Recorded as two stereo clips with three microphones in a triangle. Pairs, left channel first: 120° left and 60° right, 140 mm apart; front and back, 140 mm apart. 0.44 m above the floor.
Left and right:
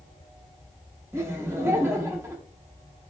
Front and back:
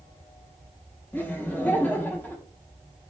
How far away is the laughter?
About 0.7 m.